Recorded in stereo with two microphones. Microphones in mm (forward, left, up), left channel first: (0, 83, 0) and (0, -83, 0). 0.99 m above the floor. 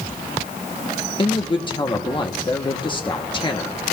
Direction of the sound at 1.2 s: 30° left (ahead or behind).